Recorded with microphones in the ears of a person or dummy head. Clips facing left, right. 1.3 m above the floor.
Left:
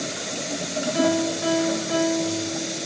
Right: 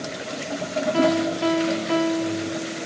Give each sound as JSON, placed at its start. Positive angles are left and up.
{"t": 0.9, "sound": "a piano", "side_deg": -45, "distance_m": 0.9}